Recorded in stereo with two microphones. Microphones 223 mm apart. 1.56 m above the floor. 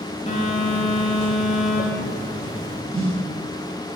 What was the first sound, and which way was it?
A phone buzzing, 30° left (ahead or behind).